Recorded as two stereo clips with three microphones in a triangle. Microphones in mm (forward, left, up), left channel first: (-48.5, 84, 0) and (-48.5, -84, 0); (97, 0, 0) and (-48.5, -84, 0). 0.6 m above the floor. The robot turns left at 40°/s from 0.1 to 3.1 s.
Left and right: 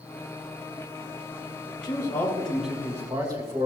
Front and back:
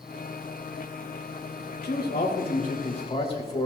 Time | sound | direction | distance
1.8 | a man speaking | 30° left | 2.5 m